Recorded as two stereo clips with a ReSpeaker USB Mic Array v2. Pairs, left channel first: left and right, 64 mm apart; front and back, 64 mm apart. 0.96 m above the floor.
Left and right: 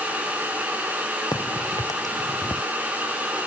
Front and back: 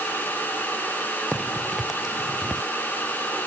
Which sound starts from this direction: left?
A crack, at 1.3 s.